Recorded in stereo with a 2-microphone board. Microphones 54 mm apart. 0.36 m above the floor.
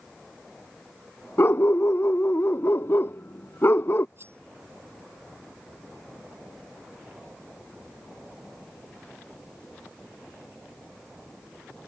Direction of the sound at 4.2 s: 45° right (ahead or behind).